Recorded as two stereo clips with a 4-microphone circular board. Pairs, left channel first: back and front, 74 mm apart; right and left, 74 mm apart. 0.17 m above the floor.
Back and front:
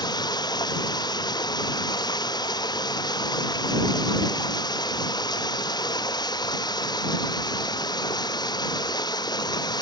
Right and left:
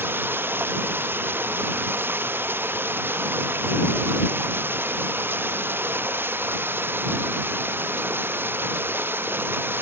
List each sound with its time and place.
0.0 s running water: 155° left